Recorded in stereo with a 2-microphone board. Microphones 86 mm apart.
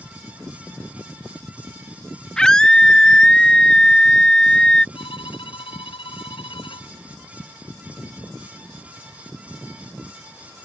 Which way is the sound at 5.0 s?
85° left.